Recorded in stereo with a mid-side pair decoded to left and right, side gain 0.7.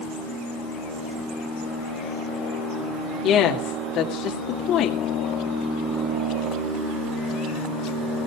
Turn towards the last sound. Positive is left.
turn(degrees=55)